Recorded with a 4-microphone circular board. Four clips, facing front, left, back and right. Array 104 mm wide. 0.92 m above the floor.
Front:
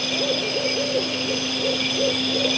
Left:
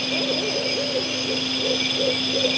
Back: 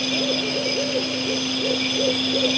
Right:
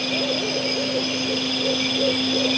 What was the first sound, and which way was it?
Only background noise.